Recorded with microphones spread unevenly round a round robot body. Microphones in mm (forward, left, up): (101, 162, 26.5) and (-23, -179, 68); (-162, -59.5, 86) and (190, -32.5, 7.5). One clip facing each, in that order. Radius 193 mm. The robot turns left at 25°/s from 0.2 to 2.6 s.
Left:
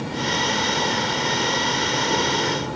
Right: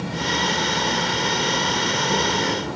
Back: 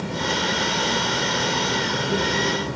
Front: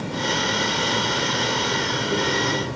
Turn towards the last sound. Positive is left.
turn(degrees=-170)